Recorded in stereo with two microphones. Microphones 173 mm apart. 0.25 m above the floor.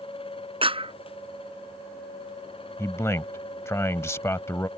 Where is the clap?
30° right (ahead or behind).